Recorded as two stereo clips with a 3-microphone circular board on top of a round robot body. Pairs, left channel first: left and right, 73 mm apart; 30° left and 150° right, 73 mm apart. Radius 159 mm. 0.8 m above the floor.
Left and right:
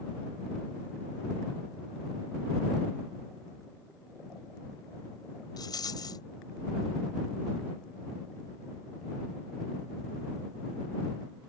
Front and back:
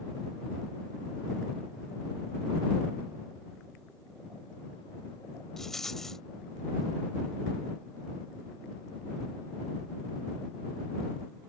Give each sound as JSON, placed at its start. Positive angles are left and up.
{"t": 5.6, "sound": "a rattle", "azimuth_deg": 115}